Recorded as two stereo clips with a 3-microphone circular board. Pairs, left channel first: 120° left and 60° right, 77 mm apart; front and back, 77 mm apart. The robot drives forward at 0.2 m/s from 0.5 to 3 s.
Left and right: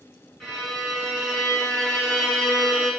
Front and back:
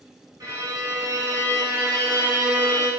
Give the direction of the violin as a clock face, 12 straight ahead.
5 o'clock.